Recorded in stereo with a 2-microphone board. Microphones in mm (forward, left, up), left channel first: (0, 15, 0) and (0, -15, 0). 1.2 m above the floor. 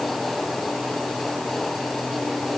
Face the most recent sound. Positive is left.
No sound to turn to.